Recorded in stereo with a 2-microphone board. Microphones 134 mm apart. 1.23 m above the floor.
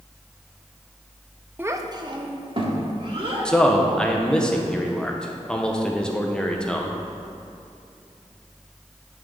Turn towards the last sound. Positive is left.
turn(degrees=5)  # may be behind; listen again after turning